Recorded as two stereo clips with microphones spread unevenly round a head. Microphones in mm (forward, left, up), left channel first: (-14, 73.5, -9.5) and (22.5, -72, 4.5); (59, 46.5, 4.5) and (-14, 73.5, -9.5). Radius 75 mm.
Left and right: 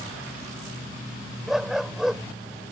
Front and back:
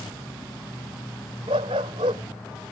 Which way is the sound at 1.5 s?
160° right.